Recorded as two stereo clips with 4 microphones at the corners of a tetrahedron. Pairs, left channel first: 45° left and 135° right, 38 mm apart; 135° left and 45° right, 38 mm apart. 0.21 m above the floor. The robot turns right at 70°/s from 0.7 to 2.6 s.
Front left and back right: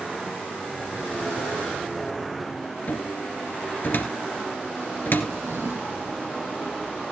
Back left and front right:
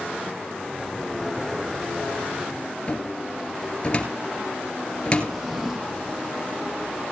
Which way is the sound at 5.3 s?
130° right.